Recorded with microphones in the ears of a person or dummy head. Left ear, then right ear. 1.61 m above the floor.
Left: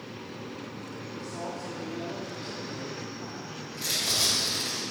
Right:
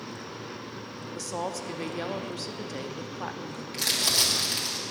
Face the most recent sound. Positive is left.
turn(degrees=-40)  # may be behind; listen again after turning